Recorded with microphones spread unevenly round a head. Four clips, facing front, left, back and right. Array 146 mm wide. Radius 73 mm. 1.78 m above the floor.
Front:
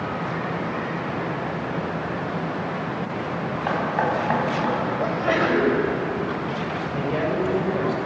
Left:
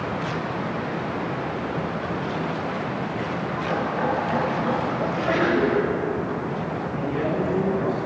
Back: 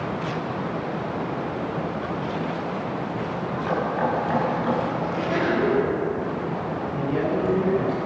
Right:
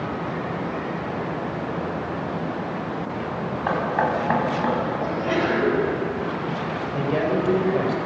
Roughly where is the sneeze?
Ahead.